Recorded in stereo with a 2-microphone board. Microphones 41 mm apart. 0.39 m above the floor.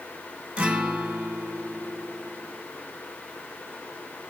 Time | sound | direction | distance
0.6 | a guitar | 30° right (ahead or behind) | 2.0 m